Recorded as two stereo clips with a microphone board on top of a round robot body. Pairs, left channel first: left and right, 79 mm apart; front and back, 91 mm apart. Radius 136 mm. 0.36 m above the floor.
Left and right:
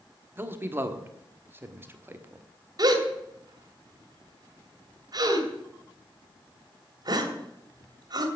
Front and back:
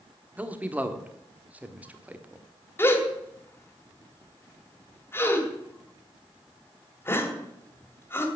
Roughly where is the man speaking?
Behind right.